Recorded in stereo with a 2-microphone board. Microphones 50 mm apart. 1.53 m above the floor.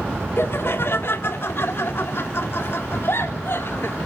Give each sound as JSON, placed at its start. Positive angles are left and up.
{"t": 0.4, "sound": "laughter", "side_deg": 55, "distance_m": 1.8}